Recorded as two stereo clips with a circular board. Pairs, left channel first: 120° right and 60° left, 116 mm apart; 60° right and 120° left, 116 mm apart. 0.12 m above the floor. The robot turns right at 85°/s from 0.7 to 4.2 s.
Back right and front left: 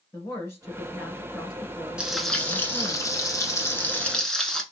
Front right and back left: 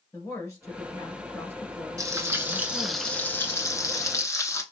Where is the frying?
130° left, 0.8 m; by 4.6 s 40° right, 0.8 m.